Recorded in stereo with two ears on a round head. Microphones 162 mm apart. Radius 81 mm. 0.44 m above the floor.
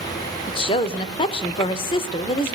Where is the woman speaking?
25° left (ahead or behind), 1.1 m.